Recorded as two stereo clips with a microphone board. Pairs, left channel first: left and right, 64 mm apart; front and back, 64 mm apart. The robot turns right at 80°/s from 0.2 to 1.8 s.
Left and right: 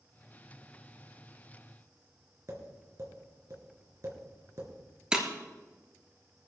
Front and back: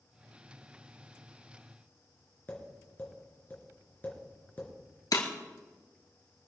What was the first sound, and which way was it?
Tapping, 60° right.